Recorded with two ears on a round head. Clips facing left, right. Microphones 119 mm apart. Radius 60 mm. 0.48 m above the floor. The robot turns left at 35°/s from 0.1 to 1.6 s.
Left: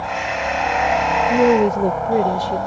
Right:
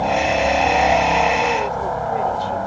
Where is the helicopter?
40° right (ahead or behind); by 2.7 s 5° left (ahead or behind).